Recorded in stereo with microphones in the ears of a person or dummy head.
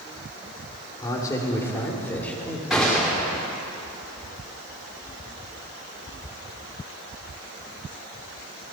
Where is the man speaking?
25° left (ahead or behind), 5 m; by 2.6 s 10° left (ahead or behind), 4.5 m.